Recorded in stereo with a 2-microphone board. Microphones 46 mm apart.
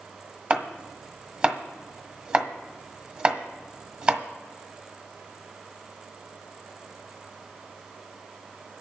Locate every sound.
0.5 s chopping: 25° right (ahead or behind), 1.2 m